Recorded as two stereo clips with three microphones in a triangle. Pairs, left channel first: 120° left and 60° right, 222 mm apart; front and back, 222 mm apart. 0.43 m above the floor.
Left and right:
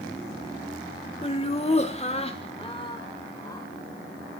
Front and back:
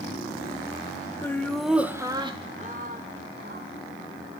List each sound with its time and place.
1.2 s laughter: 75° left, 1.5 m; by 3.7 s 170° right, 2.0 m